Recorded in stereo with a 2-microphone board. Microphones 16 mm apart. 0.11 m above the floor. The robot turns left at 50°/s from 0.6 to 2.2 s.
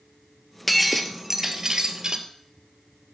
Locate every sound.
0.7 s breaking glass: straight ahead, 1.0 m; by 2.2 s 75° right, 1.0 m